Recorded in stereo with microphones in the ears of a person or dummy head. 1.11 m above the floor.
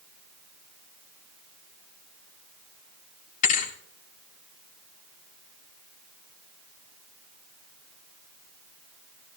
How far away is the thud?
About 1.5 m.